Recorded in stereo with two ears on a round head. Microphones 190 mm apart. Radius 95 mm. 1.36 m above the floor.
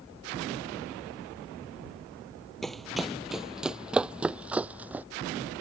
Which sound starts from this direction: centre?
Running footsteps, at 2.6 s.